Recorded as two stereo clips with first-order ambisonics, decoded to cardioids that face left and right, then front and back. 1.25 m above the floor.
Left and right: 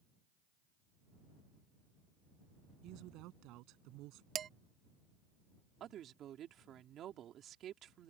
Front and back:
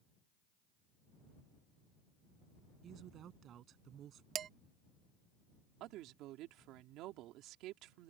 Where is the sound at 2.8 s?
125° right.